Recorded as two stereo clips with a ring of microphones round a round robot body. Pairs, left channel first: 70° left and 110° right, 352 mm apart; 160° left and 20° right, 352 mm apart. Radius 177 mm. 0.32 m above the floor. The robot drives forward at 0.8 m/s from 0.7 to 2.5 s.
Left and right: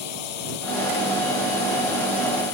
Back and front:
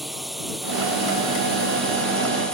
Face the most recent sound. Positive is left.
turn(degrees=70)